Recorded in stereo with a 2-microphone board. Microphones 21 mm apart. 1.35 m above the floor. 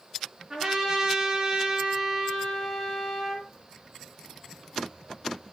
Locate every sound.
0.5 s a trumpet: 30° right (ahead or behind), 6 m